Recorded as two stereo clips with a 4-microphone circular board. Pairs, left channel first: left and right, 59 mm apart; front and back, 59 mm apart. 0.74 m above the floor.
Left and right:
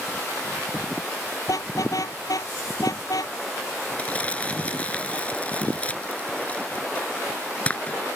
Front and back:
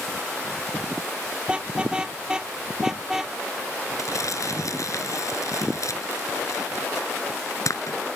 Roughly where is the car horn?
Left.